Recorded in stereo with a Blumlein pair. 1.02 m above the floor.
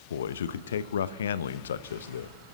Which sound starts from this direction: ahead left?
A man speaking, at 0.1 s.